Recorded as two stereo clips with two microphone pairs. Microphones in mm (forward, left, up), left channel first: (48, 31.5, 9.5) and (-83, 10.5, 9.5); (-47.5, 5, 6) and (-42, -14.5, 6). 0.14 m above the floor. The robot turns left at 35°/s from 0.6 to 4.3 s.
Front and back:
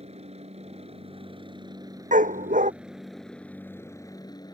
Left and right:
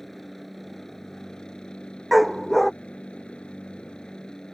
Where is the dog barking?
160° right; by 2.7 s 175° left.